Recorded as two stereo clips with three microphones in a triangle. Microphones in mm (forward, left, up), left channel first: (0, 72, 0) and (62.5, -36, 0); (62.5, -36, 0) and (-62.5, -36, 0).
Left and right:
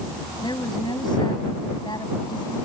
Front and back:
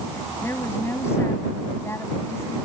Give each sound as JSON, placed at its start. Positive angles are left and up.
{"t": 0.4, "sound": "a woman speaking", "azimuth_deg": 70}